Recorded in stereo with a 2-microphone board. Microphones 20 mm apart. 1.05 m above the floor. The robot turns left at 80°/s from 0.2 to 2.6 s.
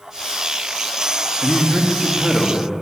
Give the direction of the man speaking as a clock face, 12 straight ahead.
3 o'clock.